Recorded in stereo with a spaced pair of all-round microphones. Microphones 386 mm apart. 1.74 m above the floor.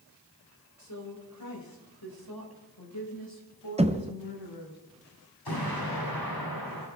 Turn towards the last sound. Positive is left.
turn(degrees=85)